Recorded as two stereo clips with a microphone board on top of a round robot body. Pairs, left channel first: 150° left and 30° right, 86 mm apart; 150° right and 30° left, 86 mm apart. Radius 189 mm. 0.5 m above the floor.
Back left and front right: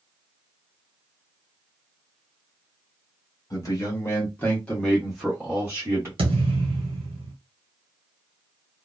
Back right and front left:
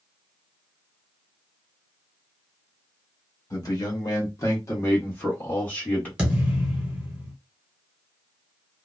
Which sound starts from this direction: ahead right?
A thud, at 6.2 s.